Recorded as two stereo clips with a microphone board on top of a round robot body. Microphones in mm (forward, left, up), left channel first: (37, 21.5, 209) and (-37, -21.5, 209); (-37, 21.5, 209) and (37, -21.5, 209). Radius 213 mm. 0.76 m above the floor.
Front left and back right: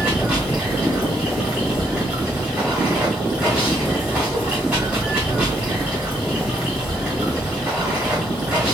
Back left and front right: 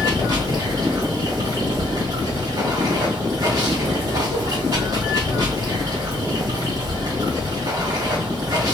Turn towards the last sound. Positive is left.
turn(degrees=-75)